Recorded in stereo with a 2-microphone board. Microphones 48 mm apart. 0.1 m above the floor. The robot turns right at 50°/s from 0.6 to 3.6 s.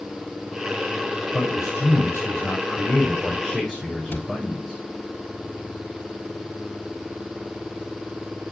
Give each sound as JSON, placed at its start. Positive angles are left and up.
{"t": 1.3, "sound": "a man speaking", "azimuth_deg": 55, "distance_m": 5.5}
{"t": 4.1, "sound": "a cupboard door", "side_deg": 50, "distance_m": 1.5}